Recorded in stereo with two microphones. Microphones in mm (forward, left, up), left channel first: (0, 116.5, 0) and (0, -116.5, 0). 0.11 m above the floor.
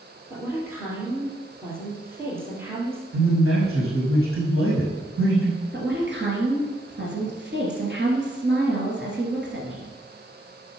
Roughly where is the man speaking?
Right.